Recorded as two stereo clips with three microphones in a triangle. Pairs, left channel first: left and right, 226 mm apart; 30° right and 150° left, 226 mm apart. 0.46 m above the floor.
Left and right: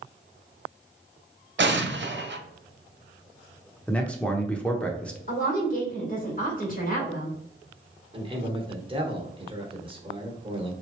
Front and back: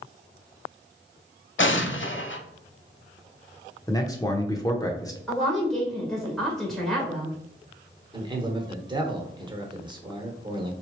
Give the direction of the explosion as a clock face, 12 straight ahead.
2 o'clock.